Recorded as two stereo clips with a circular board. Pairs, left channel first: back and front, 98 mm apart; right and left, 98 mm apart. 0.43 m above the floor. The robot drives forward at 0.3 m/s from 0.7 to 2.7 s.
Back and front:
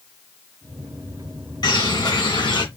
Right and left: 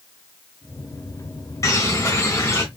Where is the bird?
145° right, 3 m; by 2.6 s 150° right, 3 m.